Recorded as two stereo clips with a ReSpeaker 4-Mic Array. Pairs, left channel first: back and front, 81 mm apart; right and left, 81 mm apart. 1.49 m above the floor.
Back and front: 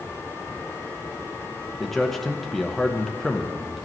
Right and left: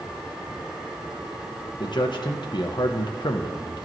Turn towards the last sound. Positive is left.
turn(degrees=-90)